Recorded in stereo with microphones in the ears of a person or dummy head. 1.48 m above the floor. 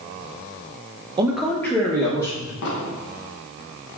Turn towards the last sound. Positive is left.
turn(degrees=70)  # may be behind; listen again after turning